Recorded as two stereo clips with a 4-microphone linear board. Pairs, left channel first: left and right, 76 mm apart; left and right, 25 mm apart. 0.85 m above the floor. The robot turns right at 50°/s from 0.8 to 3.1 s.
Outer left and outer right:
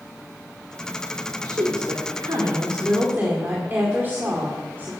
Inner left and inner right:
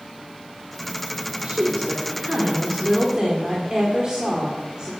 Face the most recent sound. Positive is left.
turn(degrees=-30)